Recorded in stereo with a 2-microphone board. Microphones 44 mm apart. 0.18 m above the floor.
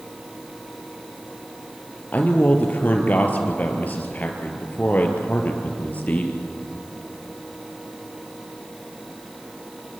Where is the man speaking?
35° left (ahead or behind), 3.5 m.